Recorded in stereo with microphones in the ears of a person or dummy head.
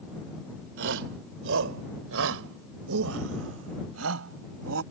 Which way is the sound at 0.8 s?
70° right (ahead or behind).